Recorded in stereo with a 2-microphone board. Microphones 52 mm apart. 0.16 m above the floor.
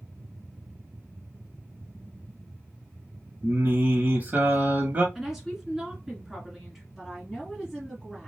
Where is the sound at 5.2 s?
5° right (ahead or behind), 1.9 m.